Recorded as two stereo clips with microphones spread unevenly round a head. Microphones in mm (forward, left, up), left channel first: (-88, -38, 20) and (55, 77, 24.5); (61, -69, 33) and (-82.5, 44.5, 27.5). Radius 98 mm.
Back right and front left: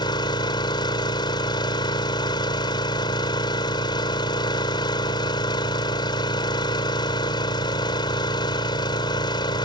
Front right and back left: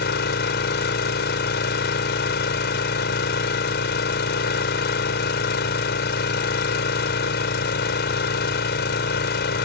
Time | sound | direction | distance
0.0 | an engine running | 70° right | ?